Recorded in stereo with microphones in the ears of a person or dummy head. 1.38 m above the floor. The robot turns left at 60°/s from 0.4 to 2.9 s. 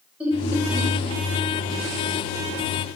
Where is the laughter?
5° right (ahead or behind), 2.5 m; by 0.9 s 35° right (ahead or behind), 2.5 m.